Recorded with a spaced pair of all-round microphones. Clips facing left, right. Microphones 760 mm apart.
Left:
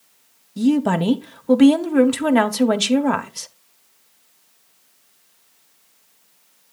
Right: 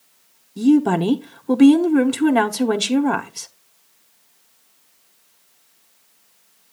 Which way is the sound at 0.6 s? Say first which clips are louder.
Right 3 dB; 15° left (ahead or behind).